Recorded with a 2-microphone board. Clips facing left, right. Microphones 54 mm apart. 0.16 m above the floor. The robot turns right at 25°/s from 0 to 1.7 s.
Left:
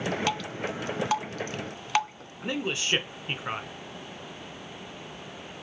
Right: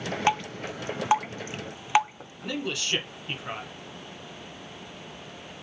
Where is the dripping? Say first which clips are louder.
Right 3 dB; 30° right (ahead or behind), 0.5 m; by 2.3 s 20° right (ahead or behind), 0.5 m.